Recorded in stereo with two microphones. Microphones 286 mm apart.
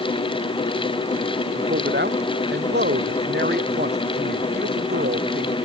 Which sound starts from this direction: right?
A man speaking, at 1.6 s.